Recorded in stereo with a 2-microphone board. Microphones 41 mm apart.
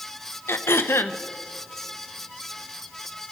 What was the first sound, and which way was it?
Throat clearing, 75° left (ahead or behind).